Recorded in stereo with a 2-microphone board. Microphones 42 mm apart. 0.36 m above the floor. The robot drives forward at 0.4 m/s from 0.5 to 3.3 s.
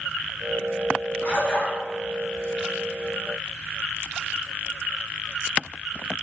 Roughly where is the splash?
Left.